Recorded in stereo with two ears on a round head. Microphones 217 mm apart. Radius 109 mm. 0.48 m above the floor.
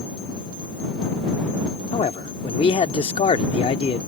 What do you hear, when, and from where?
1.9 s a man speaking: 25° left (ahead or behind)